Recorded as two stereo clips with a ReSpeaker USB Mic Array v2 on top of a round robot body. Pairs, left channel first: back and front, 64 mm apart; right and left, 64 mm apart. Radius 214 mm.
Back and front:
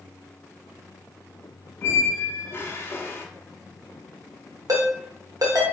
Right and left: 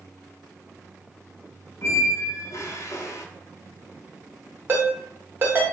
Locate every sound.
1.8 s a squeak: 130° right, 0.6 m
4.7 s a ringtone: 30° left, 0.8 m